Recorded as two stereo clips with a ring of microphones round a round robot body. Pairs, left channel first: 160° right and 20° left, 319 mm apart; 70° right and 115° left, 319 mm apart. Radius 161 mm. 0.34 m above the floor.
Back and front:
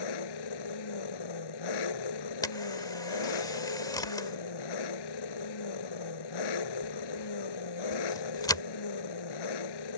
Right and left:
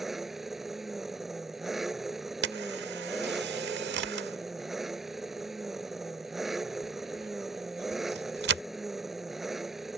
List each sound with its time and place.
0.0 s an engine running: 160° right
2.4 s a camera shutter: 130° left